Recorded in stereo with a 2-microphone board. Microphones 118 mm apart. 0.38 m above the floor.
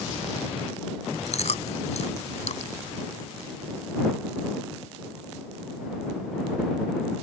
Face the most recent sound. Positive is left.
turn(degrees=70)  # may be behind; listen again after turning